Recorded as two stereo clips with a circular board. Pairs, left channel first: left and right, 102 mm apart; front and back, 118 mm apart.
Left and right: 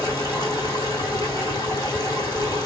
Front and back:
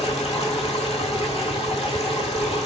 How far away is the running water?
About 1.4 m.